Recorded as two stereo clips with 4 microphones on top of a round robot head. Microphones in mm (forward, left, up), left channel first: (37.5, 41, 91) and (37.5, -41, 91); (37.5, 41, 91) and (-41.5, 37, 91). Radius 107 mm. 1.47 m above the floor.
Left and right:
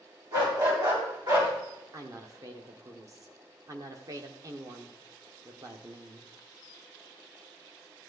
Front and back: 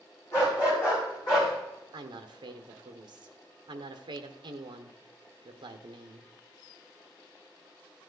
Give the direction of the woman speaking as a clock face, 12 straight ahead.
5 o'clock.